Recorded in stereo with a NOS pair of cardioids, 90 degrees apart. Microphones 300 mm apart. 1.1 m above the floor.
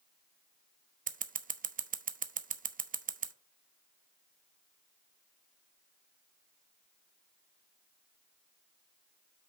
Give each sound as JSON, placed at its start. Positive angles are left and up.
{"t": 1.1, "sound": "scissors", "azimuth_deg": -30, "distance_m": 0.7}